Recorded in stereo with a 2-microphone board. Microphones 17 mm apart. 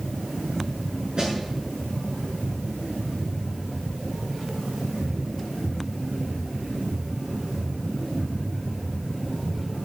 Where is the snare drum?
55° right (ahead or behind), 7 m.